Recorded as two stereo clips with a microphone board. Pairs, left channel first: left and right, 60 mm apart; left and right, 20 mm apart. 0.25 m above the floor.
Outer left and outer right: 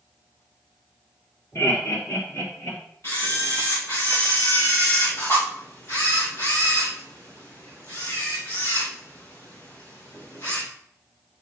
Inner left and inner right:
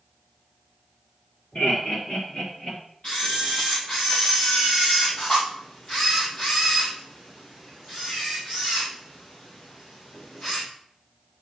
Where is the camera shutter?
55° left (ahead or behind), 4.5 m.